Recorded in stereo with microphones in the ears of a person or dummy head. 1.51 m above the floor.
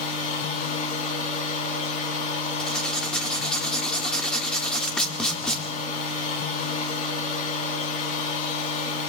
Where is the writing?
10° left (ahead or behind), 1.4 m.